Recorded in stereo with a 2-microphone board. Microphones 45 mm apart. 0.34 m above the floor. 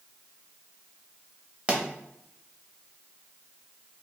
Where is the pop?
25° right (ahead or behind), 0.7 m.